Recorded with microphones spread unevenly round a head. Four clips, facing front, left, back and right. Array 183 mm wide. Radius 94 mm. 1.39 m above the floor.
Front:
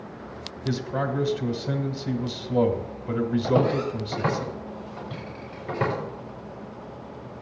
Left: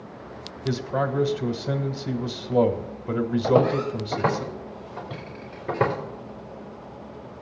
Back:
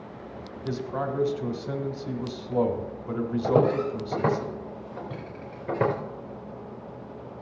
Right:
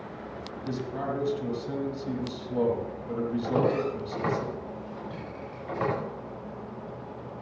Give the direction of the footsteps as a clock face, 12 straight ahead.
8 o'clock.